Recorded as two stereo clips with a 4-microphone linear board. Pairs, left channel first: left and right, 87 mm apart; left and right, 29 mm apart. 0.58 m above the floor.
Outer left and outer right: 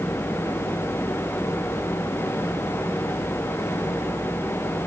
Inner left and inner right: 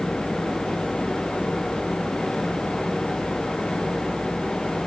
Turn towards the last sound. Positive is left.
No sound to turn to.